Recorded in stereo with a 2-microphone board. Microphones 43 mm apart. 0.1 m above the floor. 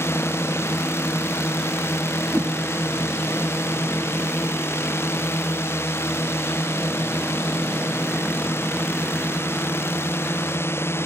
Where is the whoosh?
55° right (ahead or behind).